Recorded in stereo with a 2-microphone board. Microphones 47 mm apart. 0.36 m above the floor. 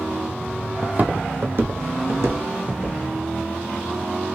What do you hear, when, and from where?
0.8 s footsteps: 30° right (ahead or behind), 0.5 m; by 3.0 s 75° right (ahead or behind), 1.3 m